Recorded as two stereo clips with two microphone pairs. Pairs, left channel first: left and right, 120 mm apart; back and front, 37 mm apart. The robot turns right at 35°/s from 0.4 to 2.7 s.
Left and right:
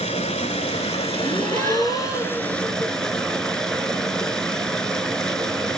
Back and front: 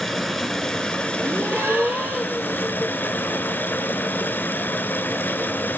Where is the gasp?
5° left, 2.5 m; by 2.5 s 50° left, 2.5 m.